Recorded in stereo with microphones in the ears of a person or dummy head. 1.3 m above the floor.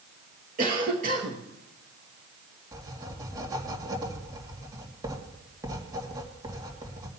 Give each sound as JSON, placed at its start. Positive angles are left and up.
{"t": 0.6, "sound": "a cough", "side_deg": -40, "distance_m": 1.3}
{"t": 2.7, "sound": "writing", "side_deg": -15, "distance_m": 2.0}